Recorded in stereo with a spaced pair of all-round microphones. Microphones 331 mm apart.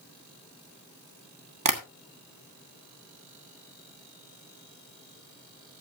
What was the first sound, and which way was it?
Tapping, 70° right (ahead or behind).